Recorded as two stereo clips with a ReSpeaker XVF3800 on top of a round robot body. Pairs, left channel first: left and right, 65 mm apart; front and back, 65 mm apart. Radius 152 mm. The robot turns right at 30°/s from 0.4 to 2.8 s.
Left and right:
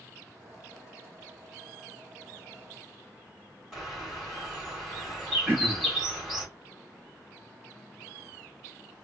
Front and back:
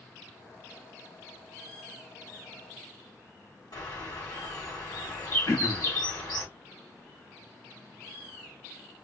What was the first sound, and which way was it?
A bird, 5° right.